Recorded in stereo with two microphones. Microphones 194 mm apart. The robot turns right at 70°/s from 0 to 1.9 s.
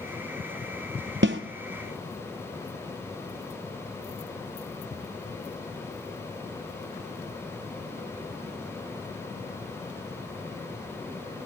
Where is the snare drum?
80° right, 1.3 m.